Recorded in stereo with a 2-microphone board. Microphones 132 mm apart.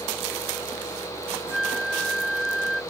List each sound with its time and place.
1.5 s a flute: centre (ahead or behind)